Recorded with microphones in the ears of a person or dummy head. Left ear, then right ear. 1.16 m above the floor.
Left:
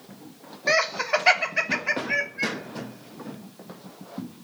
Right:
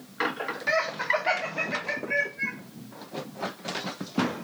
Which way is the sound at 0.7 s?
80° left.